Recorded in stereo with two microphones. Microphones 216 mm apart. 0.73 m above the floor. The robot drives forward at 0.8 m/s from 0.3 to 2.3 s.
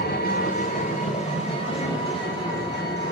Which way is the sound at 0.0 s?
45° left (ahead or behind).